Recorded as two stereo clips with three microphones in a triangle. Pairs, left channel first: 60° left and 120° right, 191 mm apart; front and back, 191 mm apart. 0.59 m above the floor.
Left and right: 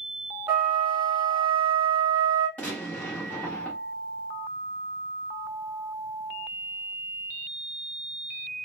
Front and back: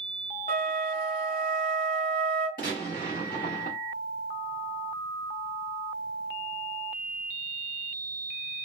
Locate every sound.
0.5 s a flute: 45° right, 1.8 m
2.6 s a gunshot: 20° right, 1.3 m